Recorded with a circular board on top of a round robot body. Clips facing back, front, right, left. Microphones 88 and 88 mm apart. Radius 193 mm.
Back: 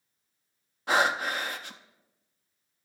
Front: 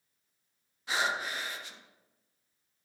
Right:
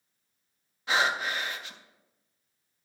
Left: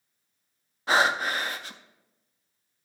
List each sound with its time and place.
0.9 s breathing: 140° left, 0.5 m